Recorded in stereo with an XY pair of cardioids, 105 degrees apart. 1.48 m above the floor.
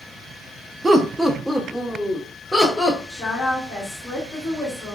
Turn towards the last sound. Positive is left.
turn(degrees=15)